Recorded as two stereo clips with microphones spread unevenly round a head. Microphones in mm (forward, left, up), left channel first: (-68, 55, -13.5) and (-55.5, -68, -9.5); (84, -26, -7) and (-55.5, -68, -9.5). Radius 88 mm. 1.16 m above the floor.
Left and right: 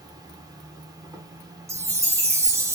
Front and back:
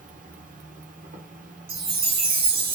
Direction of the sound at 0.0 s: 140° right.